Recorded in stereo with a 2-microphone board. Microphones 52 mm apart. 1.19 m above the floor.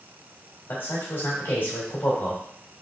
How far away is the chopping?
No chopping in this recording.